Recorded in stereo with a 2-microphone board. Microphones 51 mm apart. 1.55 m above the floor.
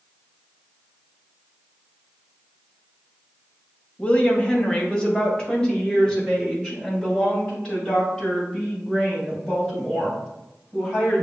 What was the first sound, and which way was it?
A woman speaking, 25° left (ahead or behind).